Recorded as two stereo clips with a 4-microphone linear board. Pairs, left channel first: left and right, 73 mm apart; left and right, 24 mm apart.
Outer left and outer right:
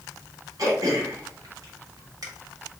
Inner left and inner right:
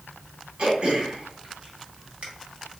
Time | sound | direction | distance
0.6 | throat clearing | 55° right (ahead or behind) | 1.5 m